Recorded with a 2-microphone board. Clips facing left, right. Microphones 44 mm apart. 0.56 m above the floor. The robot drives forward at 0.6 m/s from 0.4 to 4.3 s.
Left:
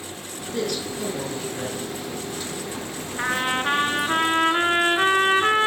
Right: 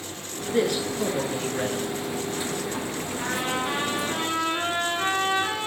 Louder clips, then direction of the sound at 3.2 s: Left 5 dB; 45° left (ahead or behind).